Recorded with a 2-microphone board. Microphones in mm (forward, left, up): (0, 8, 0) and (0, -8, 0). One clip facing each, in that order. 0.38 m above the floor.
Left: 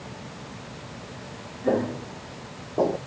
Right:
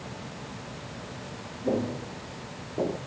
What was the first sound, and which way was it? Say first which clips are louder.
Footsteps: left 4 dB; 45° left (ahead or behind).